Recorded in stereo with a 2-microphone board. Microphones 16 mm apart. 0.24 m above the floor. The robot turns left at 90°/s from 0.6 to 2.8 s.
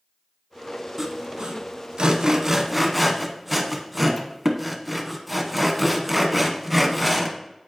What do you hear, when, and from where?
1.0 s sawing: 10° right (ahead or behind), 0.8 m; by 7.4 s 5° right (ahead or behind), 0.8 m